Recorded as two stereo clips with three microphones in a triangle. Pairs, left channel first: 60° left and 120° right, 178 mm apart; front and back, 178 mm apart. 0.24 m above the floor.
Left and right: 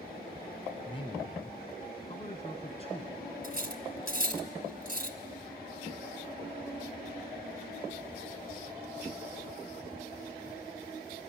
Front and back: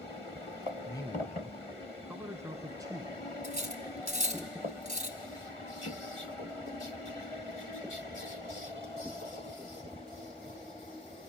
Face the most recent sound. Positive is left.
turn(degrees=-140)